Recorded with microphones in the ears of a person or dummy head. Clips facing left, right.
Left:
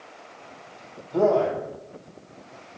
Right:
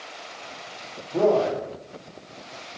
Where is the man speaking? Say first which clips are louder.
Even; centre (ahead or behind), 0.8 m.